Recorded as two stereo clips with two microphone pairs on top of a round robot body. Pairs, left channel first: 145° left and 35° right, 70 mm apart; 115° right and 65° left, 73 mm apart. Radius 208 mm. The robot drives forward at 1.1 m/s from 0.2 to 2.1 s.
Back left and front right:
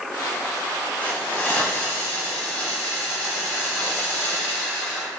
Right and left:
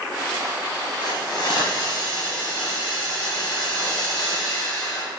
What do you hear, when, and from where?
1.0 s a hiss: 140° right, 1.6 m; by 5.1 s 160° right, 2.5 m